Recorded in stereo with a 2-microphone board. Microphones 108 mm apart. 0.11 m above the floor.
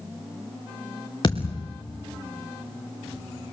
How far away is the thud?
About 3 m.